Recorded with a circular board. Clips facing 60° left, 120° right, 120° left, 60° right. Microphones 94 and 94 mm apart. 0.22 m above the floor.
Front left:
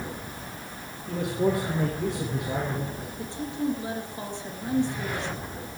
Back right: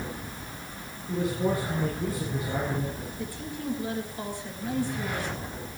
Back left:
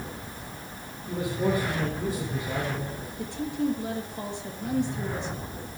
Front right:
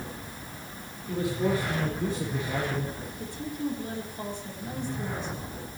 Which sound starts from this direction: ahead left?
A man speaking, at 1.1 s.